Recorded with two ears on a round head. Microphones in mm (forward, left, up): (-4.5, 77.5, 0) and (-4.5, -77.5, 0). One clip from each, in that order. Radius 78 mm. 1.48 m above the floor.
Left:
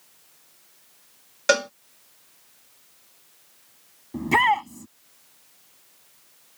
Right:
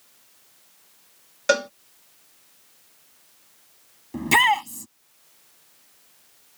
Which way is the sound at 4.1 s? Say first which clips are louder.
Right 2 dB; 75° right (ahead or behind).